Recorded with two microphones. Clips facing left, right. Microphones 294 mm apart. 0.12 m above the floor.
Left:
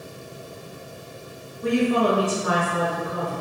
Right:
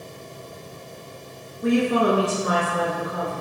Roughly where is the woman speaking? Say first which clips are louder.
Right 1 dB; right.